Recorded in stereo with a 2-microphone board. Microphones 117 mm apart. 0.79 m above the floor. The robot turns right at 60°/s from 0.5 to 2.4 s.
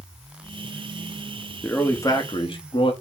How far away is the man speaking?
About 0.9 m.